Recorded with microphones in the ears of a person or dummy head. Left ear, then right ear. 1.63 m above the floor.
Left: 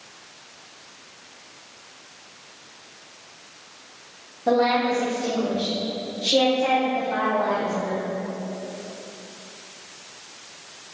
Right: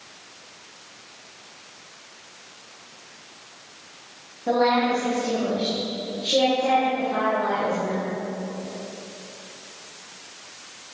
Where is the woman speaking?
45° left (ahead or behind), 1.7 m; by 8.0 s 75° left (ahead or behind), 2 m.